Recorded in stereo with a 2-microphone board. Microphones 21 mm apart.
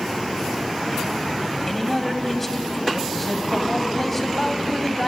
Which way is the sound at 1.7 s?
15° left (ahead or behind).